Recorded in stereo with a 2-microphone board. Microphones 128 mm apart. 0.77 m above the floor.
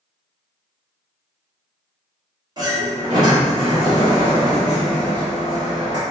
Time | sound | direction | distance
2.6 | a sliding door | 35° right (ahead or behind) | 1.2 m